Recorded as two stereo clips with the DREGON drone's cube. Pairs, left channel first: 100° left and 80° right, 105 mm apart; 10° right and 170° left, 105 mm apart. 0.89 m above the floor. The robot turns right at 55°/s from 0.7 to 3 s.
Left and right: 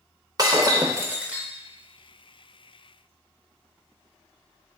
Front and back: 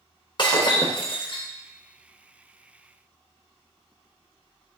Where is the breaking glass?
35° right, 0.7 m; by 1.5 s 5° left, 0.7 m.